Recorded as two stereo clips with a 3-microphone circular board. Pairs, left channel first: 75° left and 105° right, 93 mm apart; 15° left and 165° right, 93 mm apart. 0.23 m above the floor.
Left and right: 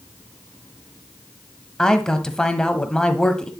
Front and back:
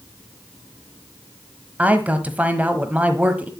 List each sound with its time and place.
1.8 s a man speaking: 145° left, 1.2 m